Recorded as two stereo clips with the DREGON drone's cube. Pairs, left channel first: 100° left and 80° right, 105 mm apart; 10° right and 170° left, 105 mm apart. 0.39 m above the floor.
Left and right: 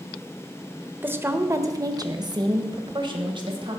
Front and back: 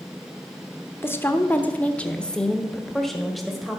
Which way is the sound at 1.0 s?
35° right.